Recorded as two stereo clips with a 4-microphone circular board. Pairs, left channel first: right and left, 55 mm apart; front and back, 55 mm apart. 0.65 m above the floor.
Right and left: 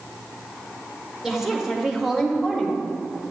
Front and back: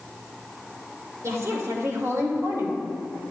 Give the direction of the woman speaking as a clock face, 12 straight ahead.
6 o'clock.